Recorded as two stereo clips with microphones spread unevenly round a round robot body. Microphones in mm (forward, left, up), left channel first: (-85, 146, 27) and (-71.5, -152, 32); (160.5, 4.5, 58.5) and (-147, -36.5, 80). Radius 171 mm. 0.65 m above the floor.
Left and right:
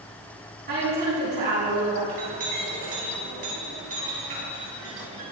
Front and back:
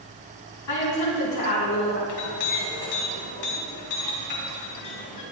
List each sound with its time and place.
0.7 s a woman speaking: 25° right, 5.5 m
2.1 s a clink: 20° right, 4 m